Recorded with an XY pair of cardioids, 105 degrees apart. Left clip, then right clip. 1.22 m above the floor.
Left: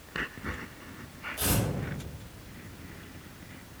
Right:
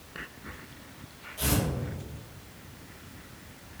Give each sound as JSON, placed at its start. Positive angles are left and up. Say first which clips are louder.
{"t": 1.4, "sound": "tearing paper", "louder": "right 1 dB", "azimuth_deg": 50, "distance_m": 1.9}